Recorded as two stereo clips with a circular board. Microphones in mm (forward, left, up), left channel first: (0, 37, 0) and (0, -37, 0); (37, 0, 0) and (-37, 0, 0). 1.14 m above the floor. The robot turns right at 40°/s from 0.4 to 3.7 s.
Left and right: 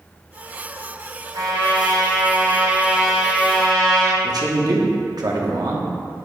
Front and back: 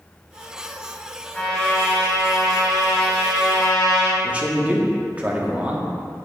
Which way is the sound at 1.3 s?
85° right.